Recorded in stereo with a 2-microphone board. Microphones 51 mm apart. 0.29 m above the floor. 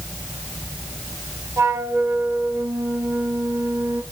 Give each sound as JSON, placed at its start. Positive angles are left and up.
{"t": 1.6, "sound": "a flute", "side_deg": -80, "distance_m": 4.0}